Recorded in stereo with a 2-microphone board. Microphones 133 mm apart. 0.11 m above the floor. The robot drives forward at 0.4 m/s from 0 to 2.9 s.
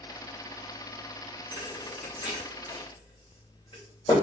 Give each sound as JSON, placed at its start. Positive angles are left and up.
{"t": 1.5, "sound": "a thud", "side_deg": 40, "distance_m": 2.5}